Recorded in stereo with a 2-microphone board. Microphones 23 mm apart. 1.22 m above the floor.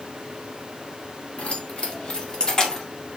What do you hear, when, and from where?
1.4 s keys jangling: 55° left (ahead or behind), 2.5 m; by 2.9 s 30° left (ahead or behind), 1.9 m